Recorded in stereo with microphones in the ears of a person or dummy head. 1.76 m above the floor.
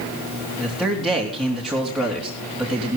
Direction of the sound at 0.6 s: Centre (ahead or behind).